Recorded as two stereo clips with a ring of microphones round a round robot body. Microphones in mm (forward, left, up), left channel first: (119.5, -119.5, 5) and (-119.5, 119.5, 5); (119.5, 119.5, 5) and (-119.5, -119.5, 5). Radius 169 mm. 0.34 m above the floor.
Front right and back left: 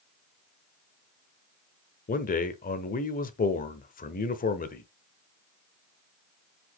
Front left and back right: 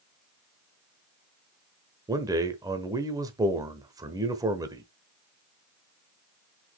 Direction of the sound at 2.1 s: 70° right.